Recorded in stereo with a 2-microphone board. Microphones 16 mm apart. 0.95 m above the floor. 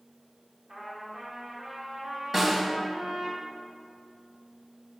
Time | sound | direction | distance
0.7 | a trumpet | 40° right (ahead or behind) | 2.0 m
2.3 | a snare drum | 30° right (ahead or behind) | 1.4 m